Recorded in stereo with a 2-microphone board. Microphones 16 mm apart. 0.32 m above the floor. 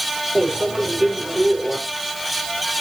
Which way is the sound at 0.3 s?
65° right (ahead or behind).